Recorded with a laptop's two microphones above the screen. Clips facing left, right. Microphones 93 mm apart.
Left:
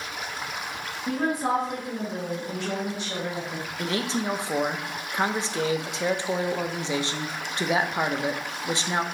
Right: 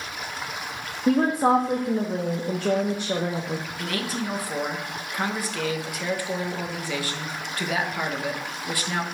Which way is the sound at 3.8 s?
25° left (ahead or behind).